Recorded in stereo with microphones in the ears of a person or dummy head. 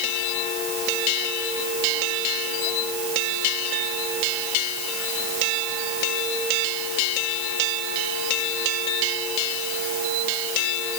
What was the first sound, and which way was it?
Only background noise.